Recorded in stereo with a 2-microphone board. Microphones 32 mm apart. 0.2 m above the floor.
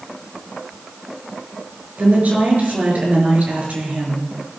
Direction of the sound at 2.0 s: 50° right (ahead or behind).